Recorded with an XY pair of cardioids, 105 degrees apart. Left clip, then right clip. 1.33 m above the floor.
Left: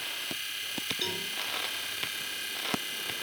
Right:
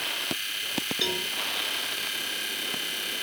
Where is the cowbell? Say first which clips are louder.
Right 8 dB; 60° right, 2.5 m.